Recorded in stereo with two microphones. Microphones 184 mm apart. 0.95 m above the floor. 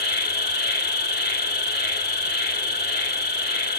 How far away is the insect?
About 0.7 m.